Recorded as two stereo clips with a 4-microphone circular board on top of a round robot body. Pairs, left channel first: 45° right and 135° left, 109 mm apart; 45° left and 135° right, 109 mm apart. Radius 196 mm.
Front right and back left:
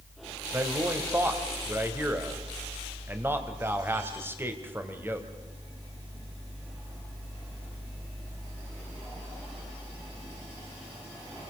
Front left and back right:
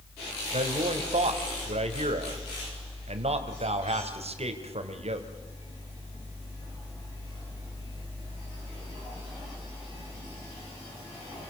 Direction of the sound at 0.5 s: 155° right.